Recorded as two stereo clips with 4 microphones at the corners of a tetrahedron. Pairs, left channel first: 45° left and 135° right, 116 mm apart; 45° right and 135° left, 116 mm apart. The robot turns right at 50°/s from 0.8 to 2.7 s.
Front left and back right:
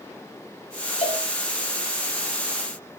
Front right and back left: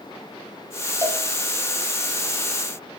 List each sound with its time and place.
1.0 s a cowbell: 70° left, 5 m; by 1.2 s 80° left, 5 m